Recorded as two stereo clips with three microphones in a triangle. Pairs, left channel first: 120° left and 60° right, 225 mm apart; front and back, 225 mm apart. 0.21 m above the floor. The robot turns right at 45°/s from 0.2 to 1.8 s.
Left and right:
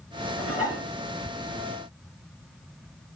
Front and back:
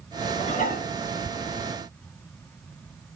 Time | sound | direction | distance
0.4 | dishes clattering | 65° right | 1.7 m